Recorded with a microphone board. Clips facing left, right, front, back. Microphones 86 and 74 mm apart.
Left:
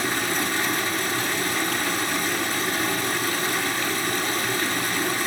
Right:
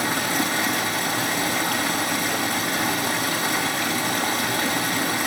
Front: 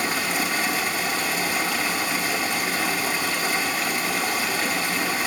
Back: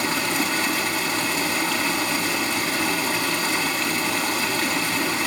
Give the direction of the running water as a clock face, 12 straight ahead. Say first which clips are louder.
Right 2 dB, back 1 dB; 3 o'clock.